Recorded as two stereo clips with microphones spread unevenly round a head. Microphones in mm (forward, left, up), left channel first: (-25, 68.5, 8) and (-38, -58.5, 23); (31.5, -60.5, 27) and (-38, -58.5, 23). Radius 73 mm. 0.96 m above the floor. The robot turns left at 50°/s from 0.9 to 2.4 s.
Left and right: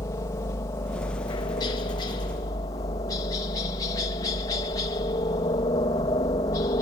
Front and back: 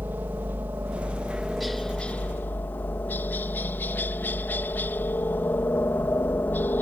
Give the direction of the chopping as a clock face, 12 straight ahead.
No chopping in this recording.